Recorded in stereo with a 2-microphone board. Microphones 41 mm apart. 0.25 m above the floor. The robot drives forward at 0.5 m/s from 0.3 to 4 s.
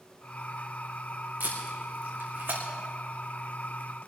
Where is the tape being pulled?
45° right (ahead or behind), 4 m; by 2.6 s 50° right (ahead or behind), 4 m.